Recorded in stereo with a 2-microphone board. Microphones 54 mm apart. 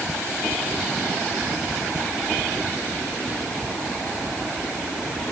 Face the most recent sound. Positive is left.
No sound to turn to.